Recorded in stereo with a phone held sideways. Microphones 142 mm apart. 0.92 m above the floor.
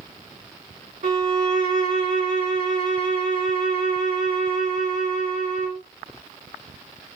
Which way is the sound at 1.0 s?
70° right (ahead or behind).